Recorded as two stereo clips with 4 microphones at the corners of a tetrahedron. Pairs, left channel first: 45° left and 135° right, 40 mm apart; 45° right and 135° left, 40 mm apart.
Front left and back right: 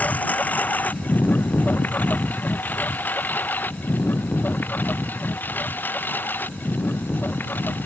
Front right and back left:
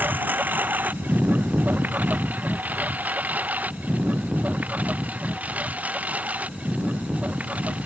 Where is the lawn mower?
95° left; by 7.9 s 80° left.